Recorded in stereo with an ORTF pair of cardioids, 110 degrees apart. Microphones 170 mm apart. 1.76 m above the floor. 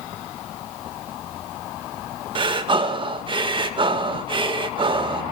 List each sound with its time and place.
2.4 s breathing: 30° right, 1.7 m